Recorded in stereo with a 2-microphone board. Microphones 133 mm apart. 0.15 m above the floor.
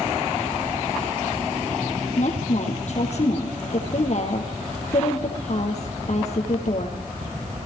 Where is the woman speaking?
65° left (ahead or behind), 4 m.